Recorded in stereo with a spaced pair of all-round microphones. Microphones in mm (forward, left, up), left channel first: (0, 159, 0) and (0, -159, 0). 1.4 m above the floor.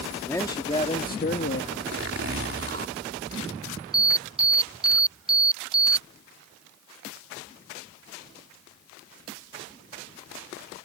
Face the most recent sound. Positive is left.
turn(degrees=-15)  # may be behind; listen again after turning